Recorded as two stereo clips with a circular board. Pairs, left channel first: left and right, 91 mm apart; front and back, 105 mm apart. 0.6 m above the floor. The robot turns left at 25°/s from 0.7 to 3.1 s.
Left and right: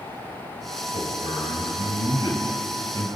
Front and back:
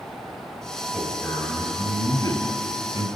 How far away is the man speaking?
About 8.5 m.